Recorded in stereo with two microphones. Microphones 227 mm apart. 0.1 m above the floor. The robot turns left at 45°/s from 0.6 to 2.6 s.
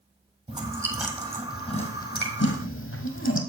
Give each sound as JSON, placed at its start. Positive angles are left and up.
{"t": 0.5, "sound": "chewing", "side_deg": -20, "distance_m": 1.5}